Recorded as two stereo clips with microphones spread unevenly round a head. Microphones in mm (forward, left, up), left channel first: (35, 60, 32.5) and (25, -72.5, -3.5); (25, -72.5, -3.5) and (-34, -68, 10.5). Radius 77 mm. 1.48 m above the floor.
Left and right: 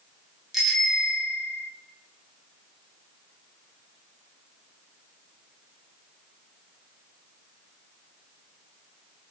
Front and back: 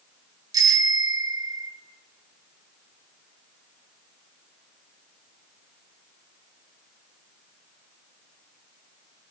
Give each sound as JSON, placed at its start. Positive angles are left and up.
{"t": 0.5, "sound": "a bicycle bell", "azimuth_deg": 175, "distance_m": 3.0}